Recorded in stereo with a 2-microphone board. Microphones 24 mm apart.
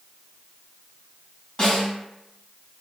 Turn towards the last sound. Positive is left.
turn(degrees=40)  # may be behind; listen again after turning